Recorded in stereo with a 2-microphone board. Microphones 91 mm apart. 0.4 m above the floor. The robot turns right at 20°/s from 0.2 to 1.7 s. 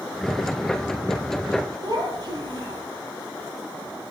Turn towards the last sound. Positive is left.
turn(degrees=-45)  # may be behind; listen again after turning